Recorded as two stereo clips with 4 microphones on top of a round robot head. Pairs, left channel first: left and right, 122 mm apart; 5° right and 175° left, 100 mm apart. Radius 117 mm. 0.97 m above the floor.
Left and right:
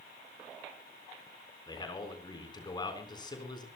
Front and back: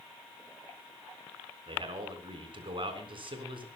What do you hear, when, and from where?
1.7 s a man speaking: 145° left, 4 m